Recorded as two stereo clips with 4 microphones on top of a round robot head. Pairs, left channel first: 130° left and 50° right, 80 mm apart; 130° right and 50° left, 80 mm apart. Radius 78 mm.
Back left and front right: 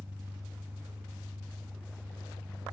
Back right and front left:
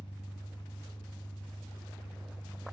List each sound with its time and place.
0.0 s an engine running: 120° right, 1.9 m